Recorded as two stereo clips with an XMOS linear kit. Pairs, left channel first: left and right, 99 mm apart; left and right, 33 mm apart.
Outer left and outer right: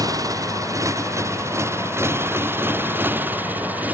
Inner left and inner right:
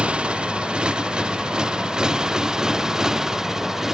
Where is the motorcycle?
35° right (ahead or behind); by 4.0 s 15° right (ahead or behind).